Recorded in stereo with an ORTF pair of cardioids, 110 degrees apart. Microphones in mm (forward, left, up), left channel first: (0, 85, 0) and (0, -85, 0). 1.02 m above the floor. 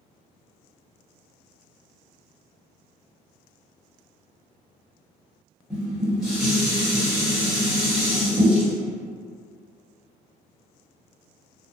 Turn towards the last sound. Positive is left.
turn(degrees=0)